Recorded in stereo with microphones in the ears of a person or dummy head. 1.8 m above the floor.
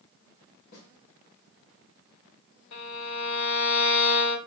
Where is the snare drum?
50° left (ahead or behind), 2.0 m.